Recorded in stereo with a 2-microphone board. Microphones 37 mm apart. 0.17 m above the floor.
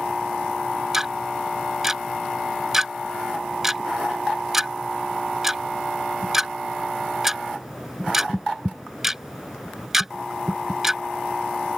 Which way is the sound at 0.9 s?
10° right (ahead or behind).